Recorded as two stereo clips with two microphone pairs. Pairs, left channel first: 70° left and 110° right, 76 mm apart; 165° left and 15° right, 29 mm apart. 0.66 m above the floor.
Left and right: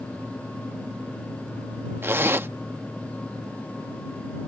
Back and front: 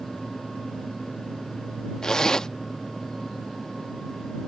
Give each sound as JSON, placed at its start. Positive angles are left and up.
{"t": 2.0, "sound": "a zipper", "azimuth_deg": -130}